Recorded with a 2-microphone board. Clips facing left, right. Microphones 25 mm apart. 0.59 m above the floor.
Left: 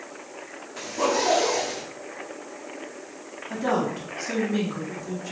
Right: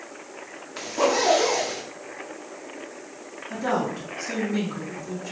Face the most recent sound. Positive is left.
turn(degrees=10)  # may be behind; listen again after turning